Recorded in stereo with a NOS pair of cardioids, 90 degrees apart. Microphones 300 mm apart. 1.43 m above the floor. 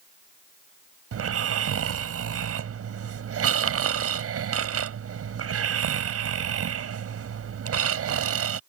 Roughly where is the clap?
I don't hear a clap.